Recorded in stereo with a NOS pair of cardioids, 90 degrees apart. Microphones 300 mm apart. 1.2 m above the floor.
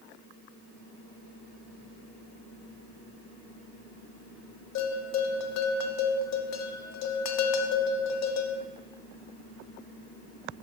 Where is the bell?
60° left, 0.7 m.